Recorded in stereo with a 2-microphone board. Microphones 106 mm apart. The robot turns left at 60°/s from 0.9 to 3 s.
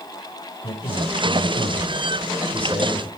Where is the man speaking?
115° left, 9.5 m; by 3.1 s 10° right, 9.5 m.